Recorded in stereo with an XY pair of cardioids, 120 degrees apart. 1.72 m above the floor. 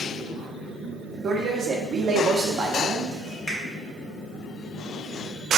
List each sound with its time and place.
1.2 s a man speaking: 45° right, 1.1 m
3.5 s a finger snap: 25° left, 1.8 m